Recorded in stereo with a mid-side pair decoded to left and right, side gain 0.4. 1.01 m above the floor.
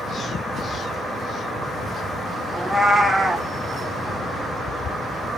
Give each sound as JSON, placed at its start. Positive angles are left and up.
{"t": 2.5, "sound": "a cat meowing", "azimuth_deg": -20, "distance_m": 0.9}